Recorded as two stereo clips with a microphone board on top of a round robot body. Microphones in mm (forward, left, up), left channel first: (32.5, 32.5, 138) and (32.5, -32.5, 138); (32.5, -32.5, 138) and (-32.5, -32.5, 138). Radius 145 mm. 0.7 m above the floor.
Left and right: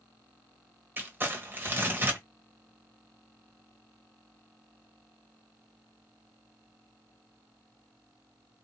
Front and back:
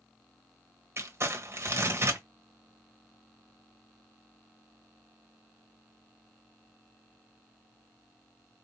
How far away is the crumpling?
About 1.3 m.